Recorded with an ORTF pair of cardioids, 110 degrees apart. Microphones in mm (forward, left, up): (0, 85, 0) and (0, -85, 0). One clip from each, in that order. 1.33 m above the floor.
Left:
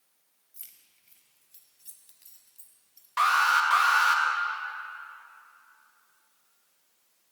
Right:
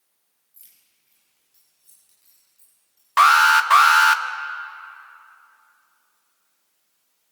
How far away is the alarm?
About 1.6 m.